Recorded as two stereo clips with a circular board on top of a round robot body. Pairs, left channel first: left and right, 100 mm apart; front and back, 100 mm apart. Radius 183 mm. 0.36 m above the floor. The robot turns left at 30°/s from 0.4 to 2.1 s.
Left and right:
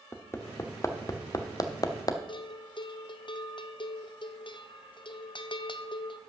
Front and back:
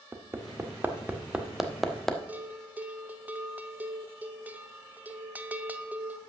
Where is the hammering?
135° left, 1.3 m; by 2.2 s 85° left, 1.3 m.